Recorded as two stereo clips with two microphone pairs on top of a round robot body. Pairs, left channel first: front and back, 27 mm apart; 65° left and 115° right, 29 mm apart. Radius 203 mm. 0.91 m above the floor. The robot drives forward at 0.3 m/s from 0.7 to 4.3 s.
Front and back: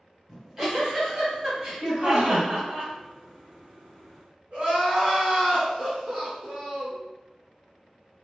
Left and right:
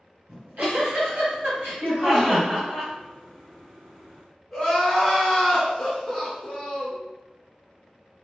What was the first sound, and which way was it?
A giggle, 105° right.